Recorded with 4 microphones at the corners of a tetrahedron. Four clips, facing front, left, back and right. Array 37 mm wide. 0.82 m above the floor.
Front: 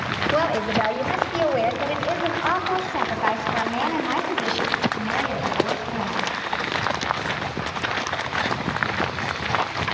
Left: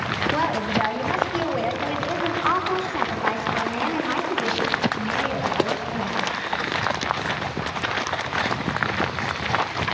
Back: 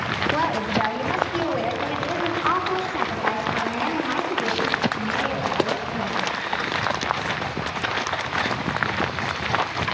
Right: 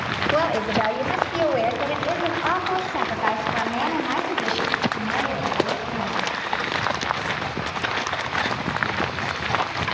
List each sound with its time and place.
0.3 s a woman speaking: 50° right, 3.5 m; by 6.3 s 40° right, 8 m